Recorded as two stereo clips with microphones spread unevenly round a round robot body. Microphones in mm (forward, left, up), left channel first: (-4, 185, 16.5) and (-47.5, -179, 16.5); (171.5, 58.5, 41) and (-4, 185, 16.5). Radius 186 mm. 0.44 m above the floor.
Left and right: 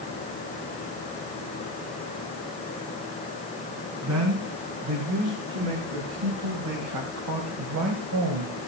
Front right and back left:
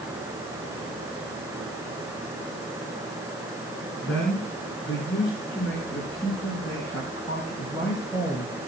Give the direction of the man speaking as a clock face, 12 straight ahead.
4 o'clock.